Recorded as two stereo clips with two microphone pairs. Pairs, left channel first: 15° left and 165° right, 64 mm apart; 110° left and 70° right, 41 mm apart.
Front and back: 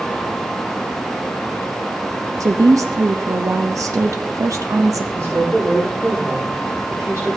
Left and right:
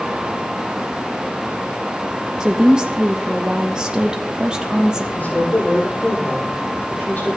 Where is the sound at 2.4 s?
140° right, 0.6 m.